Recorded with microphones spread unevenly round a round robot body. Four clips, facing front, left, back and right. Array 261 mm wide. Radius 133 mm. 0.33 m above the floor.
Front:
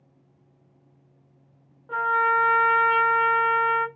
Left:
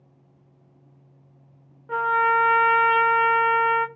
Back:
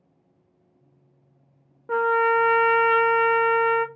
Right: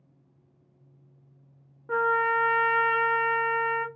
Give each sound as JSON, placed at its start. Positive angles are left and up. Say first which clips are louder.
{"t": 1.9, "sound": "a trumpet", "louder": "left 4 dB, back 2 dB", "azimuth_deg": -170, "distance_m": 0.7}